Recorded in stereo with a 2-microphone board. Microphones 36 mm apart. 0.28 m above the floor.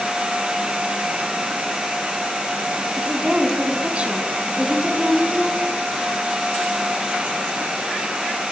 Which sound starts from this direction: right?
A woman speaking, at 3.0 s.